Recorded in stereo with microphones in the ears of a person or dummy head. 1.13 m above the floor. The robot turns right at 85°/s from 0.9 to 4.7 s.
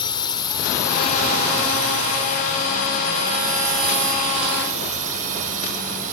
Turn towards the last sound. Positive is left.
turn(degrees=-45)  # may be behind; listen again after turning